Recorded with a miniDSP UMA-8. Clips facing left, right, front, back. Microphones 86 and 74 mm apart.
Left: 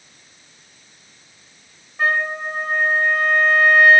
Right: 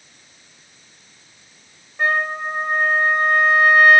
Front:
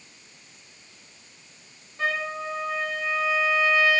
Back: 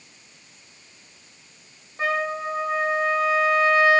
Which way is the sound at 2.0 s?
175° right.